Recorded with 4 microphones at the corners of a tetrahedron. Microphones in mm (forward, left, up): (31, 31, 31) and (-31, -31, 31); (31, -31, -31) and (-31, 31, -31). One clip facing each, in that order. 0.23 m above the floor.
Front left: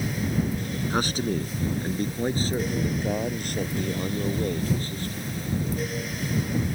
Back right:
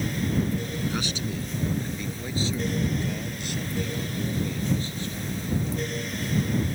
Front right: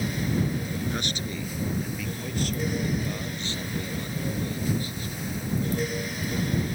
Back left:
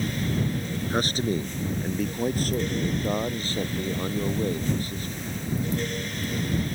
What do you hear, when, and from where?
0.9 s a man speaking: 85° left; by 5.3 s 90° left